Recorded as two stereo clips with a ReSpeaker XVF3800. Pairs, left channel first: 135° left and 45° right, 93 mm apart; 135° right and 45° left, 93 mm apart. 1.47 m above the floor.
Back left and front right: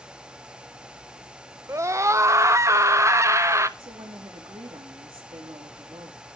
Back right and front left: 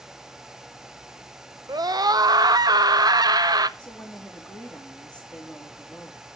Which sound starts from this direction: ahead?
A scream, at 1.7 s.